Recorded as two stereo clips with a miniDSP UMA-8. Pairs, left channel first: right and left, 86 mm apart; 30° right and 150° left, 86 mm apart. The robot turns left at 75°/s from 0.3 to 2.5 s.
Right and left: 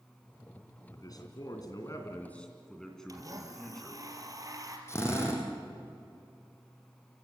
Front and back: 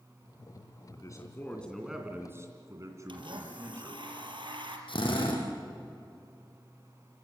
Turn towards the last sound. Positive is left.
turn(degrees=-30)